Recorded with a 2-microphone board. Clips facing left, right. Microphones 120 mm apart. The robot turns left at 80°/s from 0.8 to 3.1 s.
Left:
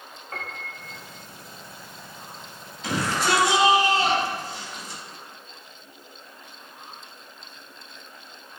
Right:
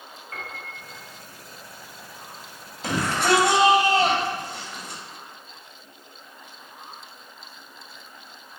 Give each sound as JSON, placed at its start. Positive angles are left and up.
{"t": 0.3, "sound": "a piano", "side_deg": 40, "distance_m": 1.4}
{"t": 2.8, "sound": "a shout", "side_deg": -40, "distance_m": 2.0}